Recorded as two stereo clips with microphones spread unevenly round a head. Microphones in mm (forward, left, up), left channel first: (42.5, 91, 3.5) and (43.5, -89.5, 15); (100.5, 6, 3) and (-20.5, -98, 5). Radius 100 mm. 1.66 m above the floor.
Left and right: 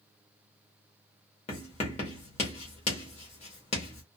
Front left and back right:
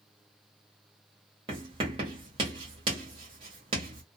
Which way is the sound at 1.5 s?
155° left.